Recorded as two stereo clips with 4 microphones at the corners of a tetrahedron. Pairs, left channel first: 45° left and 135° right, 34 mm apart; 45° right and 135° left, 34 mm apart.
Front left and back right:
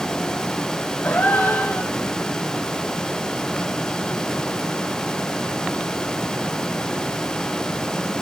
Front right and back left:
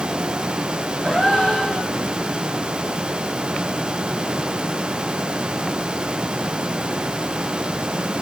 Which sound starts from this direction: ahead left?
A gasp, at 1.0 s.